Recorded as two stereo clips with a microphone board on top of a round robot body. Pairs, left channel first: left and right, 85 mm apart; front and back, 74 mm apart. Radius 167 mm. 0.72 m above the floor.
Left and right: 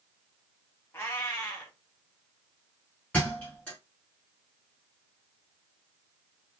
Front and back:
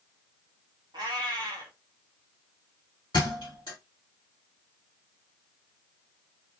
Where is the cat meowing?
155° left, 0.9 m.